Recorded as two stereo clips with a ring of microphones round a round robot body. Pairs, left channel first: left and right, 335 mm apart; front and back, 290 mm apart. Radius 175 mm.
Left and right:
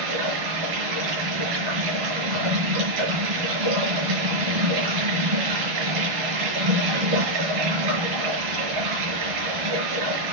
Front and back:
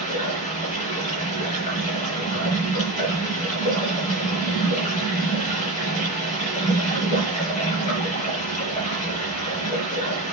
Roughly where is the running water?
Right.